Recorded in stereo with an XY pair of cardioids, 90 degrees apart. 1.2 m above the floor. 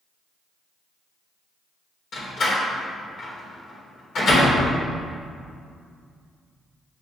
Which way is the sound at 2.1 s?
70° left.